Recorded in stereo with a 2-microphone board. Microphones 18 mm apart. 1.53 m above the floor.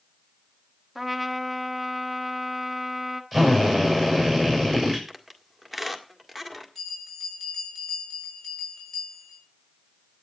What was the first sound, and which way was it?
A trumpet, 5° left (ahead or behind).